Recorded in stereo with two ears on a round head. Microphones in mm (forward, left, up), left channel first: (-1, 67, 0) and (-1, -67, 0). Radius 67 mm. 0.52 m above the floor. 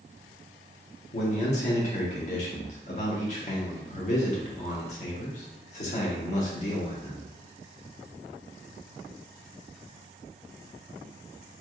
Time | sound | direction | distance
1.1 | a man speaking | 50° left (ahead or behind) | 1.0 m